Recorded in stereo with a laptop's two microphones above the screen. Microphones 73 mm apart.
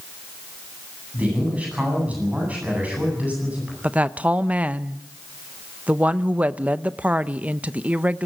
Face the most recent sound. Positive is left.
turn(degrees=-20)  # may be behind; listen again after turning